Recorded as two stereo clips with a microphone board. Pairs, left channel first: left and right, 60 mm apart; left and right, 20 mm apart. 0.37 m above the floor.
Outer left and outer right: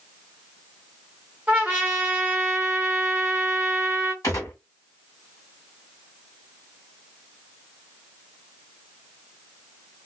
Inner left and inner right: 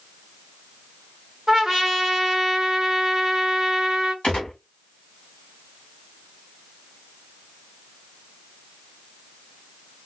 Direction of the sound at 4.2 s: 70° left (ahead or behind).